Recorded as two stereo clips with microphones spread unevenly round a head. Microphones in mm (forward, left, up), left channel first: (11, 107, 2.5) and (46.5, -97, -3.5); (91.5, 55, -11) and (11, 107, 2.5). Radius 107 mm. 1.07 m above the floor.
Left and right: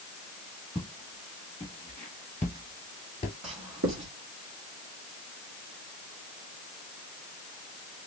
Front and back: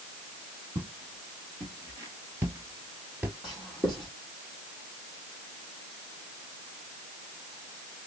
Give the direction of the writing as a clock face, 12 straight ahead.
4 o'clock.